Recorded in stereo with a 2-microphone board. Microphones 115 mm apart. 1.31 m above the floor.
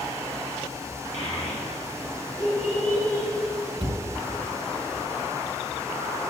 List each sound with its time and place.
1.1 s a child speaking: 65° left (ahead or behind), 2.5 m; by 3.3 s 75° left (ahead or behind), 4 m
3.8 s a cupboard door: 40° right (ahead or behind), 1.4 m